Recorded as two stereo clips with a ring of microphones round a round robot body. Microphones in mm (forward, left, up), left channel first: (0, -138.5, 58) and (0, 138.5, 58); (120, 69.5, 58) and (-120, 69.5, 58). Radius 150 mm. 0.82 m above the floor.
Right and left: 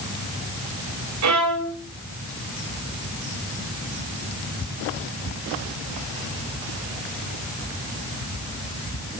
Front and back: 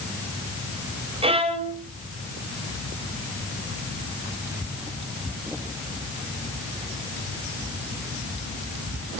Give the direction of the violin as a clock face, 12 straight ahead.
8 o'clock.